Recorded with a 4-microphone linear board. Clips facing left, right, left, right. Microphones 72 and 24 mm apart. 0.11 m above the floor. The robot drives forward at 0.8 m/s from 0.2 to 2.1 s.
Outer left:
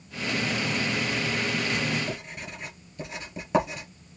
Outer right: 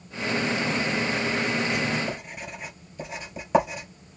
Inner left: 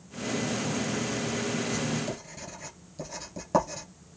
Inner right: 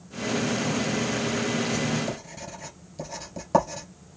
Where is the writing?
5° right (ahead or behind), 1.8 m.